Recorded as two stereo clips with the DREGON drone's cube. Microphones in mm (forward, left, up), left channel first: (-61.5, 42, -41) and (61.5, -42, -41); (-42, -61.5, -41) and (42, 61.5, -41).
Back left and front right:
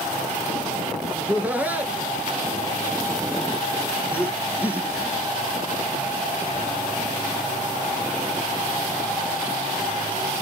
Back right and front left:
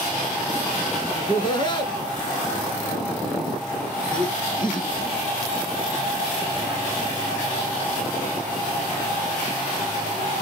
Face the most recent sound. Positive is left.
turn(degrees=-105)